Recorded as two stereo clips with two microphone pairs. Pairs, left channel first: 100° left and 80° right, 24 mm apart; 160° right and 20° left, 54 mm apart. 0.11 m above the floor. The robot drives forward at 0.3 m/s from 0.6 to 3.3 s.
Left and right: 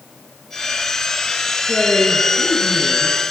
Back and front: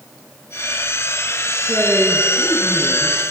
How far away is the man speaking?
About 1.6 m.